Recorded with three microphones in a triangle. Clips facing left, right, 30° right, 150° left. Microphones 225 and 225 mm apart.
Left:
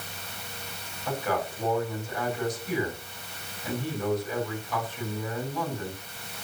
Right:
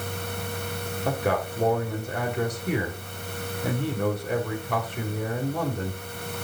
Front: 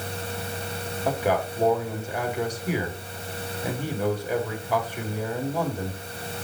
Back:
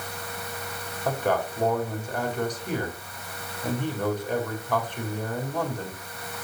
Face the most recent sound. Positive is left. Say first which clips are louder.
# right 3 dB, front 1 dB
turn(degrees=-110)